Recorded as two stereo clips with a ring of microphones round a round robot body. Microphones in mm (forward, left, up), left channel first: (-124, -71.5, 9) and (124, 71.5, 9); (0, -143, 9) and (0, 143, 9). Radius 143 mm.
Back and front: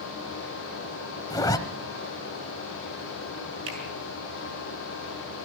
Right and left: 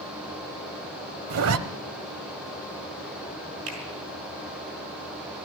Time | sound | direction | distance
1.3 | a zipper | 130° left | 0.9 m
3.7 | a finger snap | 50° left | 6 m